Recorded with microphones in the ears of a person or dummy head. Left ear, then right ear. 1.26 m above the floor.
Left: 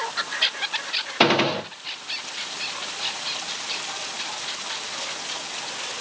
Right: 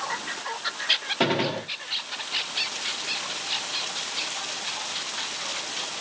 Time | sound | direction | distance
1.2 | a gunshot | 40° left (ahead or behind) | 2 m